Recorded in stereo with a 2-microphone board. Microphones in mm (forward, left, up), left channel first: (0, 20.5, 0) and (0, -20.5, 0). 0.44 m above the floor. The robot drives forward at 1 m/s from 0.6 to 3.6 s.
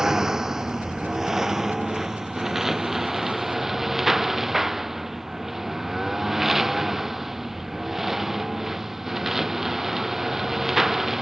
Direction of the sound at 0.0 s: 10° right (ahead or behind).